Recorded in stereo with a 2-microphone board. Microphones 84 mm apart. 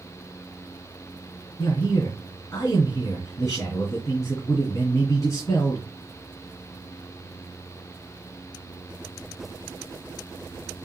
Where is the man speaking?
45° left (ahead or behind), 2.5 m.